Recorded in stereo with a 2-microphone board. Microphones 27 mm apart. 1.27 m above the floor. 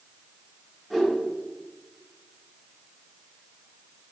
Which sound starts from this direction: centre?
A whoosh, at 0.9 s.